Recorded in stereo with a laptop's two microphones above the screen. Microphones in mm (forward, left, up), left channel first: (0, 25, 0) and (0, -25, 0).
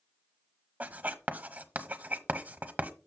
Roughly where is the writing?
Right.